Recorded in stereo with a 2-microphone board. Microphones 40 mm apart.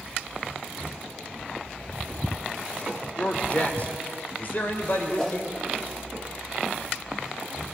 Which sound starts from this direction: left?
A man speaking, at 3.2 s.